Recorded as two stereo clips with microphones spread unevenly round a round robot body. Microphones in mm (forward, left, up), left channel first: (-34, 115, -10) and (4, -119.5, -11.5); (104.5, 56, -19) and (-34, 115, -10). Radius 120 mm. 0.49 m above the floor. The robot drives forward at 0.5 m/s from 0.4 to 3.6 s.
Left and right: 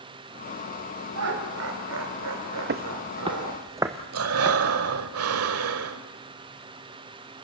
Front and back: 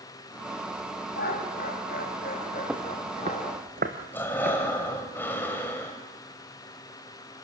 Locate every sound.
1.1 s laughter: 55° right, 3 m; by 3.6 s 80° right, 2.5 m
2.7 s footsteps: 120° right, 0.8 m; by 4.5 s 165° right, 2.5 m
4.1 s breathing: 105° right, 1.5 m